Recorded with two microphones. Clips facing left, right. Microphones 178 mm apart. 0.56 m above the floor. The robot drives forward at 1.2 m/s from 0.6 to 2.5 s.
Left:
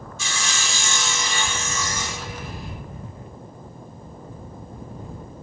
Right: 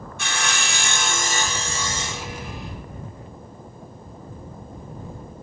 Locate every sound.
0.2 s sawing: 60° right (ahead or behind), 0.9 m; by 2.7 s 20° right (ahead or behind), 2.5 m